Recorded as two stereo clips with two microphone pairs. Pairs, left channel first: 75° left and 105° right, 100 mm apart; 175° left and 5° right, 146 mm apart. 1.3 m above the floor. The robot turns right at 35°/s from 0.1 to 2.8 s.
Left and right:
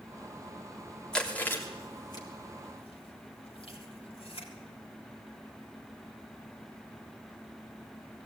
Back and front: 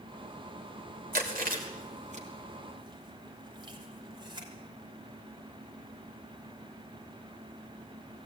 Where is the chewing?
10° right, 3.5 m; by 4.5 s 50° left, 3.5 m.